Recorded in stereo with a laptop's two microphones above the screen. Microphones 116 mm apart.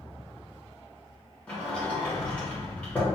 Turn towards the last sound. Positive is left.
turn(degrees=10)  # may be behind; listen again after turning